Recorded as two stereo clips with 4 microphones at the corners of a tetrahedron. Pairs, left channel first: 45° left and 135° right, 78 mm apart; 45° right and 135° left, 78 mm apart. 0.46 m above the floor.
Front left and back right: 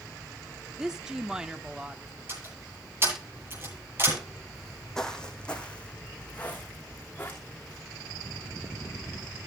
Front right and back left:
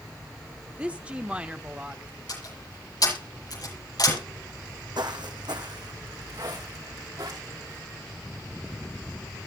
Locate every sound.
0.8 s a woman speaking: 165° left, 0.9 m
2.3 s a door slam: 75° right, 9.5 m
4.5 s footsteps: 135° left, 1.3 m; by 7.8 s 110° left, 3.5 m